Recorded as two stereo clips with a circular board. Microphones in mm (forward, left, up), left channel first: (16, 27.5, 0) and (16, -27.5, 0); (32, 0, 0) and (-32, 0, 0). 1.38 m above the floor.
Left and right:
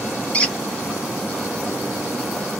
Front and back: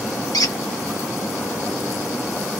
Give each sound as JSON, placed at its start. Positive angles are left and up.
{"t": 0.3, "sound": "a squeak", "azimuth_deg": 20, "distance_m": 1.0}